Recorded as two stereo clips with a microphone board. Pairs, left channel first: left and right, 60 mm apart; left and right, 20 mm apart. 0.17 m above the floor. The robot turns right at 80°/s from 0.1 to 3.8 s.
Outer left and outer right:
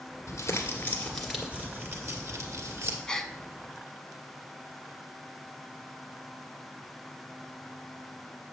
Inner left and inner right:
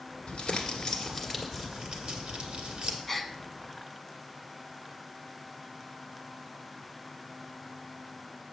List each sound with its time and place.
0.3 s crumpling: 100° left, 1.6 m; by 3.0 s 45° right, 1.6 m
3.1 s a gasp: 10° left (ahead or behind), 0.5 m; by 3.3 s centre (ahead or behind), 0.5 m